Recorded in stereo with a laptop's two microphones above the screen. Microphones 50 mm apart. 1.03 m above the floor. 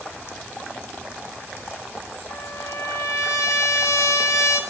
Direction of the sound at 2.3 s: 85° left.